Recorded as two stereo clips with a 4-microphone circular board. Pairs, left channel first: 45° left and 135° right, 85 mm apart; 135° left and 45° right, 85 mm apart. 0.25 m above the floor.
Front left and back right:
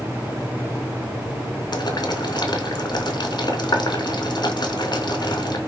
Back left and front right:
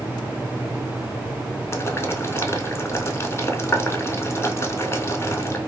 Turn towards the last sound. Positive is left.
turn(degrees=75)